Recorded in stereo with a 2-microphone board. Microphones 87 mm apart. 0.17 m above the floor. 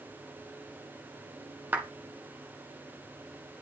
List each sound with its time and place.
1.7 s a clap: 25° right (ahead or behind), 1.2 m